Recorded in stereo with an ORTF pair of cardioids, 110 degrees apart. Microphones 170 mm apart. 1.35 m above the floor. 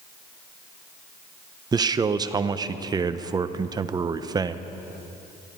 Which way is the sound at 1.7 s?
25° right.